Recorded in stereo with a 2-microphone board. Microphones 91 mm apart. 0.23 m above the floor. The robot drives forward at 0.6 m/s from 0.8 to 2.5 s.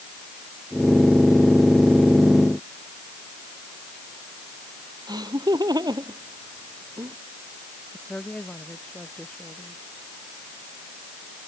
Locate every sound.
5.1 s laughter: 50° right (ahead or behind)
7.9 s a woman speaking: 10° left (ahead or behind)